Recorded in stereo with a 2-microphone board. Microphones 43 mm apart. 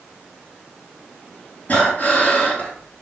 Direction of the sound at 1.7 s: 40° left (ahead or behind).